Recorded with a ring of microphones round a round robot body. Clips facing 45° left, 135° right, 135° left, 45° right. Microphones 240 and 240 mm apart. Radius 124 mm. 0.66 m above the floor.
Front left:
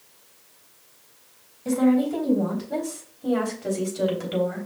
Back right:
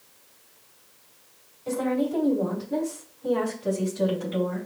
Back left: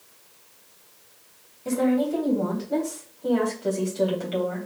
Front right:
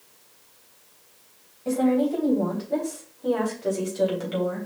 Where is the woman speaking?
65° left, 3.5 m; by 4.7 s 30° left, 3.5 m.